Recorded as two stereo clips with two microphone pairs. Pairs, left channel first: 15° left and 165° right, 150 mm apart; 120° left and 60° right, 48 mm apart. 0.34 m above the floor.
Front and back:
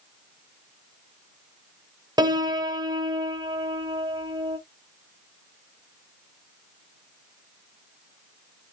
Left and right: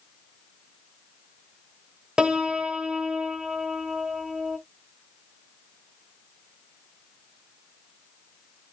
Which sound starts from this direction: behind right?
A piano, at 2.2 s.